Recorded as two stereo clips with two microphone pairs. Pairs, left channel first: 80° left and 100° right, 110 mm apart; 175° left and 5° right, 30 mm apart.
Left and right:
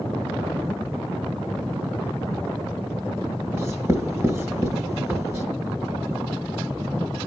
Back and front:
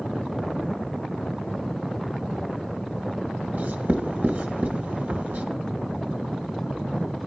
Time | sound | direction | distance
3.5 | writing | 35° right | 0.8 m